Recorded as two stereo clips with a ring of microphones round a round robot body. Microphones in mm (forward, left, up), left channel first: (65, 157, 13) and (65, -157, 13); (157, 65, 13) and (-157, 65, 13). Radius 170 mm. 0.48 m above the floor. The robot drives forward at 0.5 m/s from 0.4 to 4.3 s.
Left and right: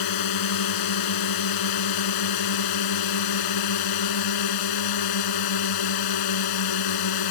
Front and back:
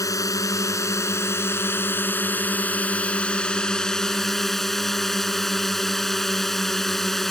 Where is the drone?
80° left; by 7.3 s 90° left.